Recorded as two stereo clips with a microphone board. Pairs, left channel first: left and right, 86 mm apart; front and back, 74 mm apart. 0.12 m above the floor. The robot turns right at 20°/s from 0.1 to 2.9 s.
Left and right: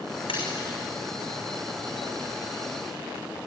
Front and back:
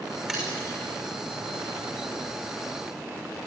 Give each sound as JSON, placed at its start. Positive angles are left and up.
{"t": 0.3, "sound": "a splash", "azimuth_deg": 95, "distance_m": 6.5}